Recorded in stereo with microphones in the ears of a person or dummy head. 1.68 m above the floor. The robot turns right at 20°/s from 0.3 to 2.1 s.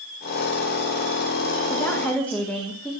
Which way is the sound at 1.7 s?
15° left (ahead or behind).